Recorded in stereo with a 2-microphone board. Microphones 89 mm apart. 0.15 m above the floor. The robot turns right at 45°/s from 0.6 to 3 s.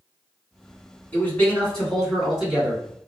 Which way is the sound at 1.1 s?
20° left (ahead or behind).